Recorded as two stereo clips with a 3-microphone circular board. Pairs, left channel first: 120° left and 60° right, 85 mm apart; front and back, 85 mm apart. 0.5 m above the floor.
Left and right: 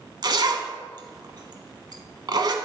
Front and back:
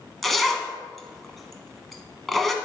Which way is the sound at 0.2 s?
90° right.